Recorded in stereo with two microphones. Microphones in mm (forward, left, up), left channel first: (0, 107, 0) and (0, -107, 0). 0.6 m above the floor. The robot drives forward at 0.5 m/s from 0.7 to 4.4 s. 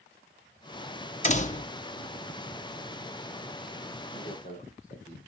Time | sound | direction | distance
1.2 | a door slam | 35° left (ahead or behind) | 0.7 m
4.1 | a man speaking | 40° left (ahead or behind) | 2.5 m